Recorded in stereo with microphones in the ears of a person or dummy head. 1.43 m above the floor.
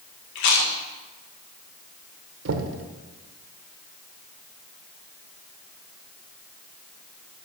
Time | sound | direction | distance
0.3 | chewing | 75° left (ahead or behind) | 1.7 m
2.5 | knocking | 90° right | 1.1 m